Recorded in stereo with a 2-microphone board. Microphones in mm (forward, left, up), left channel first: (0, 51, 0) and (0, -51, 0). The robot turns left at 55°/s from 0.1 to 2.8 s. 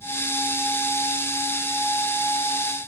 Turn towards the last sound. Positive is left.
No sound to turn to.